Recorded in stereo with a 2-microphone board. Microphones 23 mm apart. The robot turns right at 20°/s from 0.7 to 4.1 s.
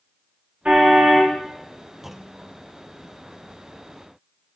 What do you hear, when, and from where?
0.7 s a car horn: 85° right, 9 m; by 1.4 s 75° right (ahead or behind), 9 m
2.0 s a clunk: 15° right (ahead or behind), 0.9 m; by 2.6 s 20° right (ahead or behind), 0.9 m